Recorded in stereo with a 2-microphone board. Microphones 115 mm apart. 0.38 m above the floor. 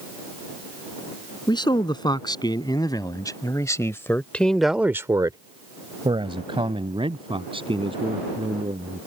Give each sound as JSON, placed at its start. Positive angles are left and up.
{"t": 1.5, "sound": "a man speaking", "side_deg": 40}